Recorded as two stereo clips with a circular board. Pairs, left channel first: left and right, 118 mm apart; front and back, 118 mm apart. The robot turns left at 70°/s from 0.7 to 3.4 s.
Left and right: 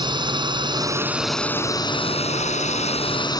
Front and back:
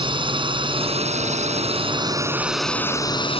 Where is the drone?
135° right; by 3.4 s 35° left.